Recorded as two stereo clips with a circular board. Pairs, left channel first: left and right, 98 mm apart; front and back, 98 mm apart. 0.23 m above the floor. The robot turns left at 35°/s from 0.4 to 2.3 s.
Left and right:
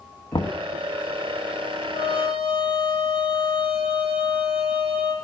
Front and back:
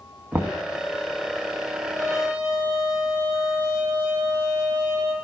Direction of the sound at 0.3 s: 110° left.